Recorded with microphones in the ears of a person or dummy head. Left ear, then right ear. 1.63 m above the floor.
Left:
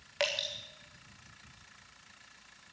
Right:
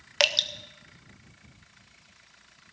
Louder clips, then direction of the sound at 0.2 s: Right 9 dB; 45° right (ahead or behind).